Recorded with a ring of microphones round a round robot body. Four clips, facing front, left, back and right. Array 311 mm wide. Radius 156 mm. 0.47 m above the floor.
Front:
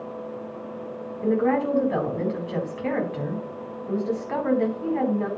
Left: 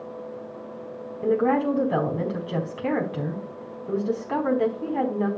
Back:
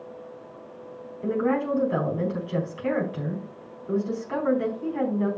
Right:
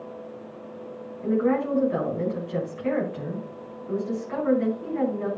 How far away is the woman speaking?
About 4 m.